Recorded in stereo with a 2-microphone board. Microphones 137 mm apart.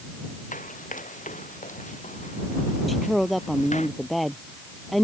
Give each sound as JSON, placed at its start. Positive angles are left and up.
{"t": 0.5, "sound": "running footsteps", "side_deg": 70}
{"t": 2.9, "sound": "a woman speaking", "side_deg": 0}